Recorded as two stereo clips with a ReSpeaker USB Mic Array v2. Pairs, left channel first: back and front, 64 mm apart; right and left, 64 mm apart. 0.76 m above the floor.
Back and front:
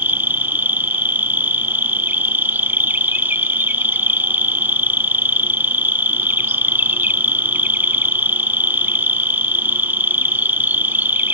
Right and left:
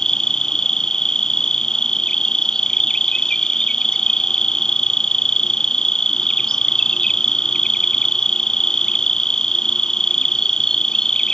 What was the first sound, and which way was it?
An insect, 15° right.